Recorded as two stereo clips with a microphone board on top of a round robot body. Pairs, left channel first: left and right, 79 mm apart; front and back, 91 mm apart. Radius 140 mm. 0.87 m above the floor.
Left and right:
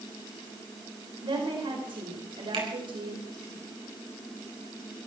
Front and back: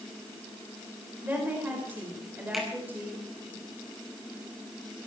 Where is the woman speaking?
110° right, 4.5 m.